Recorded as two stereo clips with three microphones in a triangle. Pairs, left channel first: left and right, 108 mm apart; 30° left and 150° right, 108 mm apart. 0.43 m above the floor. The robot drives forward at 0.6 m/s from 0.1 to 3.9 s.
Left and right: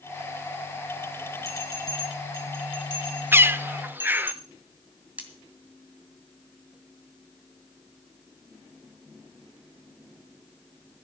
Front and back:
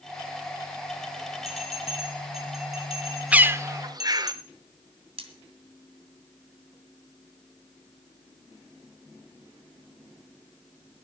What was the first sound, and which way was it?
A bell, 35° left.